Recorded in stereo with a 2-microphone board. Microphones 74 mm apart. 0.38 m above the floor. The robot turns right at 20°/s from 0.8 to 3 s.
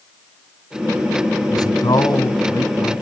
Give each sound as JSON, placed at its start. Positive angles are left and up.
{"t": 1.5, "sound": "a man speaking", "azimuth_deg": 75, "distance_m": 2.0}